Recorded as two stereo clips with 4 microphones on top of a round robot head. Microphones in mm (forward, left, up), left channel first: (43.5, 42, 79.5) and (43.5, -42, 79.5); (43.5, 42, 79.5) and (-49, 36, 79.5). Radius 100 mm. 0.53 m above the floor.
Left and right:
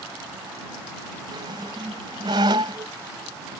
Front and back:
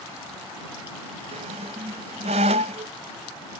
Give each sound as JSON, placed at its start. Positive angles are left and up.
{"t": 1.3, "sound": "a squeak", "azimuth_deg": -145}